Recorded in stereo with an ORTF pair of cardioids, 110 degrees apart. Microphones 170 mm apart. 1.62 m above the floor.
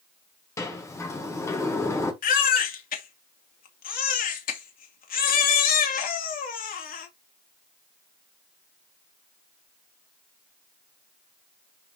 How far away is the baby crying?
About 2.5 m.